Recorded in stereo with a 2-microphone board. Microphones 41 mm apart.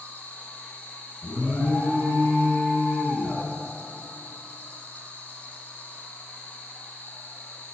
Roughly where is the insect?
Left.